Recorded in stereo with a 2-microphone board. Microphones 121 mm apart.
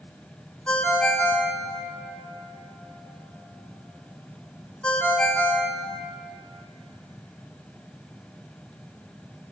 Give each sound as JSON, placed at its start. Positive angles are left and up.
{"t": 0.7, "sound": "a ringtone", "side_deg": 10, "distance_m": 1.0}